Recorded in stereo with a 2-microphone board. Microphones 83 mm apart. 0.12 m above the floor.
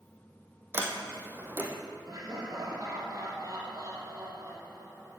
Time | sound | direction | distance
0.7 | a sliding door | 30° right (ahead or behind) | 2 m
2.1 | laughter | 50° right (ahead or behind) | 4.5 m